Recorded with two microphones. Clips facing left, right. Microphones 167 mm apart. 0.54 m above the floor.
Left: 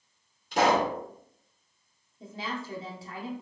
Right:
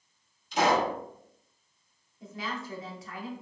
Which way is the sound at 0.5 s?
60° left (ahead or behind).